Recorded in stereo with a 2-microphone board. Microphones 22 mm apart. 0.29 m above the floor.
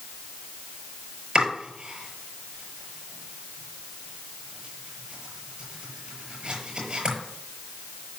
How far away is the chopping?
About 6.5 m.